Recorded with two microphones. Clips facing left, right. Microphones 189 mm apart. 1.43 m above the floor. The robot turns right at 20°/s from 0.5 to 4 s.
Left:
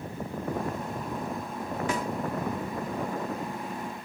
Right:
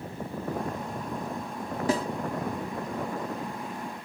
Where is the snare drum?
35° right (ahead or behind).